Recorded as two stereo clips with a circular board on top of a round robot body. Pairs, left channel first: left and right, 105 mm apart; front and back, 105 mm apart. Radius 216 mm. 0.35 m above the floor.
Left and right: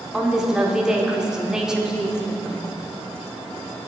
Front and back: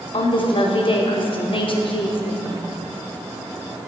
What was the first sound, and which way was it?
A woman speaking, 10° right.